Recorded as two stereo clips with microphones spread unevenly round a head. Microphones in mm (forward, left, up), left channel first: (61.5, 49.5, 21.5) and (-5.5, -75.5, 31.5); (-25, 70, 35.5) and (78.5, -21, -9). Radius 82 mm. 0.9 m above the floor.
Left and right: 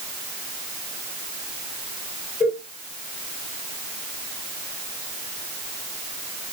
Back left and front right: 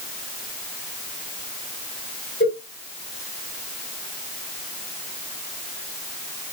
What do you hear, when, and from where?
2.4 s a cowbell: 145° left, 1.7 m